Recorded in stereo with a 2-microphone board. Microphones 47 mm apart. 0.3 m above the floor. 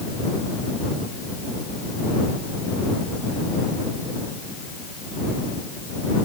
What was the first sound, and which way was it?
Only background noise.